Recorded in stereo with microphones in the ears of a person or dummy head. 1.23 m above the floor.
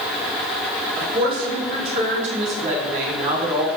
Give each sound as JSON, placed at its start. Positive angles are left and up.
{"t": 0.9, "sound": "a woman speaking", "side_deg": -30, "distance_m": 3.0}